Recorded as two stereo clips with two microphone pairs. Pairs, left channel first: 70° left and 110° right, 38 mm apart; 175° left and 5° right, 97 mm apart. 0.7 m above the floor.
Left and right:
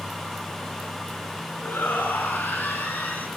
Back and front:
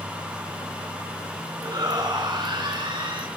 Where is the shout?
45° left, 7.5 m; by 3.3 s 30° left, 8 m.